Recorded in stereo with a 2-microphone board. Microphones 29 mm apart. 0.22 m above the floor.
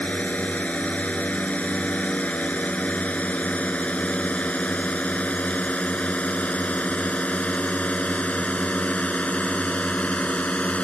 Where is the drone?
55° left (ahead or behind); by 10.8 s 50° left (ahead or behind).